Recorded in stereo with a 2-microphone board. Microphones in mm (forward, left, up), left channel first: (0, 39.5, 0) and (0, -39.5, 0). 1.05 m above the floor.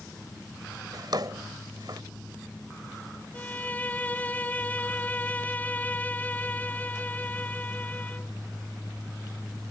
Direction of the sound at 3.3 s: 20° left (ahead or behind).